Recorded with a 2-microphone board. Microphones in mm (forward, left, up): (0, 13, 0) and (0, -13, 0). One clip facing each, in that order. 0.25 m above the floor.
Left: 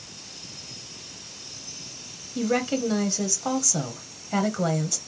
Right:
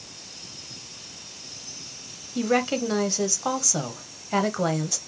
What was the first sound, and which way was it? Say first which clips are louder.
A woman speaking: right 1 dB; 15° right (ahead or behind).